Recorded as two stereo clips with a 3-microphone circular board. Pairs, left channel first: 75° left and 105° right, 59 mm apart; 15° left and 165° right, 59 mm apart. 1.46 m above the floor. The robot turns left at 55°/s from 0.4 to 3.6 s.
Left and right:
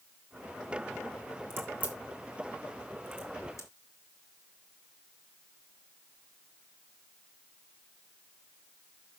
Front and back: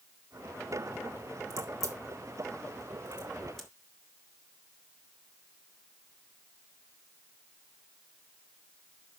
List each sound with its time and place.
1.5 s a crack: 150° right, 1.8 m; by 3.7 s 95° left, 1.8 m